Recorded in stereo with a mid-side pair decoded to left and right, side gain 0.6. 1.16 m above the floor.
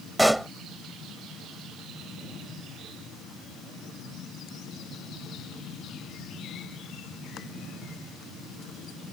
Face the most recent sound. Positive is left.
turn(degrees=-5)